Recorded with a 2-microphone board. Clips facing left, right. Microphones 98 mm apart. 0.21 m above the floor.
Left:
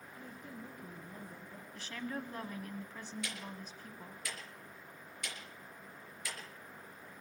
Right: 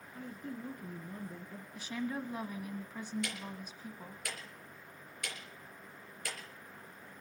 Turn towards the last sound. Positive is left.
turn(degrees=-55)  # may be behind; listen again after turning